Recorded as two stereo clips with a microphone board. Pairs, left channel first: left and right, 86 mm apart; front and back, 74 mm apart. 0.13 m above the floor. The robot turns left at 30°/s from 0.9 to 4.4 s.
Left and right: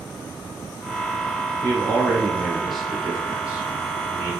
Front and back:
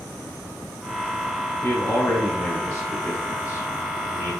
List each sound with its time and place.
1.6 s a man speaking: 30° left, 1.3 m; by 4.3 s 50° right, 1.3 m